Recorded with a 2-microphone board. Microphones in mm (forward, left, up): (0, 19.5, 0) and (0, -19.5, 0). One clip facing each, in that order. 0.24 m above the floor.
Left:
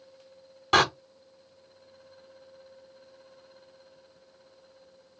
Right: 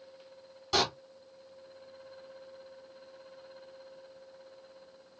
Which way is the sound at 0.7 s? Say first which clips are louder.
Left 8 dB; 50° left (ahead or behind).